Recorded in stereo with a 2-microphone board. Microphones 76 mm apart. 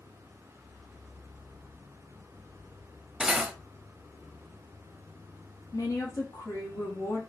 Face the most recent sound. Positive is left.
turn(degrees=50)  # may be behind; listen again after turning